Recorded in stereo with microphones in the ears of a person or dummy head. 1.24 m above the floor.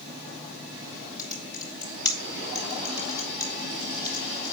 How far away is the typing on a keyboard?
About 3 m.